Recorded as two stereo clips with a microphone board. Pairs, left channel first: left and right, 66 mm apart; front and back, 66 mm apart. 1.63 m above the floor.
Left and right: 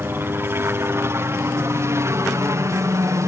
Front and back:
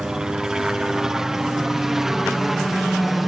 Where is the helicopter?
110° right; by 3.3 s 95° right.